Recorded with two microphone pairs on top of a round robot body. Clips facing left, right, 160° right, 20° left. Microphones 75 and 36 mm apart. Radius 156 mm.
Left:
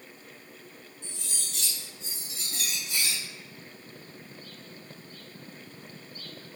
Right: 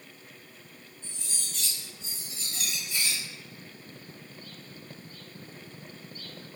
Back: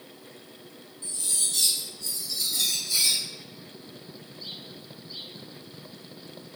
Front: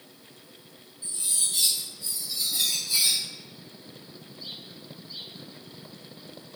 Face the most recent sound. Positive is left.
turn(degrees=95)